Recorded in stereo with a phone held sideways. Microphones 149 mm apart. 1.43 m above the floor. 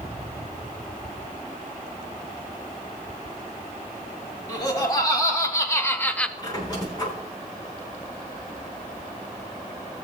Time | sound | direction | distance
4.5 | laughter | 30° left (ahead or behind) | 3.5 m
6.4 | a squeak | 30° left (ahead or behind) | 7.5 m